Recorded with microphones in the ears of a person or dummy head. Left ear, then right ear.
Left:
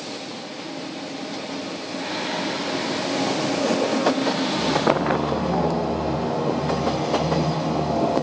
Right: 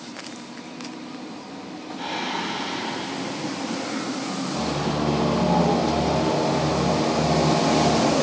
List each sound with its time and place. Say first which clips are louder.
2.0 s singing: even; centre (ahead or behind), 2.5 m